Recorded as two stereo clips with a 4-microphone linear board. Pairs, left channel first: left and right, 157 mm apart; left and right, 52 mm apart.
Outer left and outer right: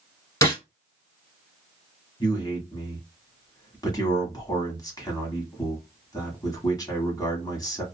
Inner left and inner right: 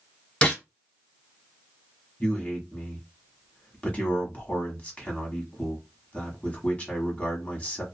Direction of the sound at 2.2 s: 25° left (ahead or behind).